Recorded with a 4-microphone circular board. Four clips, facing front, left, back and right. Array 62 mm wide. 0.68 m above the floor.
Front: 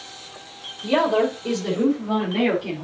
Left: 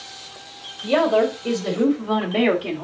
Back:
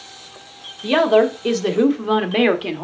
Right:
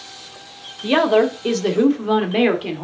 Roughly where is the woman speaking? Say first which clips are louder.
Right 2 dB, back 5 dB; behind right.